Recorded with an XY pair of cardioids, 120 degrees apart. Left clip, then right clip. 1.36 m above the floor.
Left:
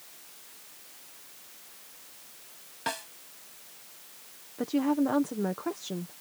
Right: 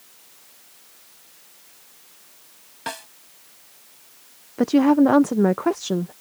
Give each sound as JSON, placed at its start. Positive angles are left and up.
{"t": 2.9, "sound": "a snare drum", "azimuth_deg": -10}
{"t": 4.6, "sound": "a woman speaking", "azimuth_deg": -60}